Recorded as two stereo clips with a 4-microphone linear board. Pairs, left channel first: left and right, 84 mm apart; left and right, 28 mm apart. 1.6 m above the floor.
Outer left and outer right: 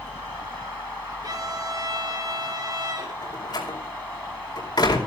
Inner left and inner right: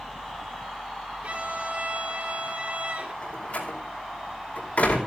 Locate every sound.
1.2 s a violin: 50° right (ahead or behind), 4.5 m
3.2 s a door slam: 60° left (ahead or behind), 4.5 m